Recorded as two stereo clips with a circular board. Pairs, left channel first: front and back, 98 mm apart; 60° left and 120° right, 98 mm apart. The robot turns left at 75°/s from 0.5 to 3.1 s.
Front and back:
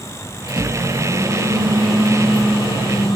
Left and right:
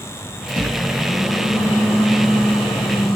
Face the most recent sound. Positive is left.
turn(degrees=20)